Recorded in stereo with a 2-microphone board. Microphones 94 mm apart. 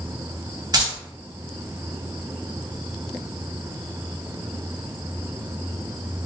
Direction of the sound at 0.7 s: 40° right (ahead or behind).